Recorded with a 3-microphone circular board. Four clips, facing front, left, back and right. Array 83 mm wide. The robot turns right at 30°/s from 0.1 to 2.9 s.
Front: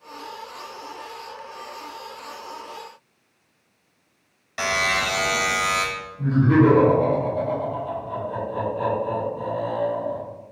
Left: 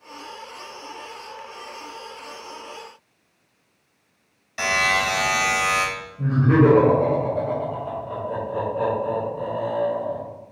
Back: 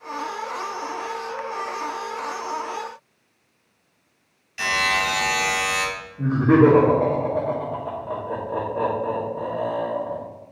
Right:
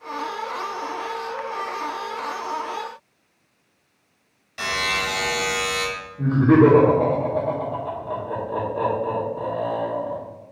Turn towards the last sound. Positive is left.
turn(degrees=-135)